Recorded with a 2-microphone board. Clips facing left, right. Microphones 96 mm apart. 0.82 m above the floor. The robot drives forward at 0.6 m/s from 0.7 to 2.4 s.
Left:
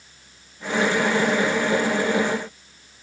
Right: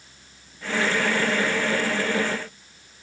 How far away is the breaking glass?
I don't hear breaking glass.